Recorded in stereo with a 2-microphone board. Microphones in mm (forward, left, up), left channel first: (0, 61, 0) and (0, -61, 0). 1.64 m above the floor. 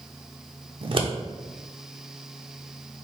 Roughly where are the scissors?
Right.